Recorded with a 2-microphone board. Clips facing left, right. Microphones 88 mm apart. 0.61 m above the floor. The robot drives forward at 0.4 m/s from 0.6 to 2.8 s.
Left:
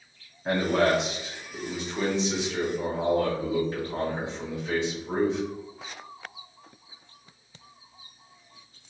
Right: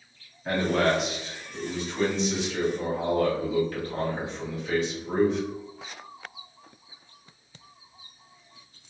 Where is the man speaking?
20° left (ahead or behind), 1.2 m.